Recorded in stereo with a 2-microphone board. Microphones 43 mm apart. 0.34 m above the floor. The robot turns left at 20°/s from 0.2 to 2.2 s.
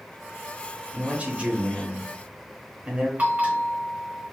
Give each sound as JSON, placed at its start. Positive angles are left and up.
{"t": 0.9, "sound": "a man speaking", "side_deg": -30, "distance_m": 1.0}
{"t": 3.2, "sound": "a bell", "side_deg": -40, "distance_m": 1.1}